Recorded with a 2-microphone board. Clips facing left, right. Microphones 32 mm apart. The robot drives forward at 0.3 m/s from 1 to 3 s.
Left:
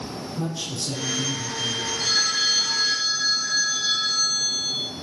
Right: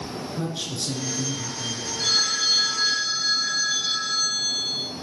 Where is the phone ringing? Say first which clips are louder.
Right 1 dB; 45° right (ahead or behind), 2.5 m; by 4.8 s 40° right (ahead or behind), 3 m.